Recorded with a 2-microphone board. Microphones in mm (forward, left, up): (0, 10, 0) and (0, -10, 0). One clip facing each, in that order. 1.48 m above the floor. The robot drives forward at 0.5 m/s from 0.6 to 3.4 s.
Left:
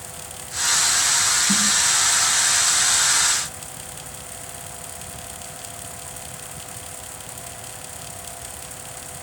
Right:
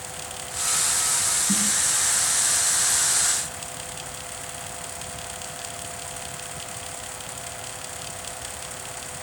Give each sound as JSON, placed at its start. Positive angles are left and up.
{"t": 1.5, "sound": "a snare drum", "side_deg": 5, "distance_m": 5.5}